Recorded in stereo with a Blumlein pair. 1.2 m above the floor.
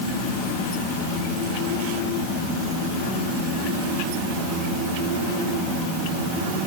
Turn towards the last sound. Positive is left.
No sound to turn to.